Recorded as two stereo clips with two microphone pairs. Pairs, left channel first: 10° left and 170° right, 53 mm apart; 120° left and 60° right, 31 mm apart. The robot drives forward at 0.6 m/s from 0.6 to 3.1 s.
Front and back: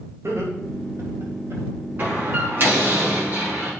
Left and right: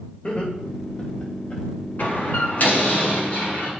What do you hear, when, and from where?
0.2 s laughter: 165° left, 3.5 m; by 1.6 s 170° left, 4 m
2.0 s a door slam: 140° left, 5.5 m; by 3.7 s 145° left, 6 m